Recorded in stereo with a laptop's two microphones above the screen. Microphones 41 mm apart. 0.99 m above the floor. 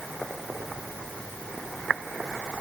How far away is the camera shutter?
No camera shutter in this recording.